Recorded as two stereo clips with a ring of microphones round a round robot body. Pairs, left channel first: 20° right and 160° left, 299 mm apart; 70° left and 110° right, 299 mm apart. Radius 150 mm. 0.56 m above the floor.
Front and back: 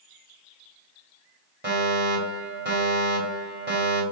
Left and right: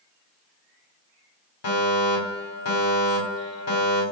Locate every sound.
1.6 s a fire alarm: 105° left, 3.5 m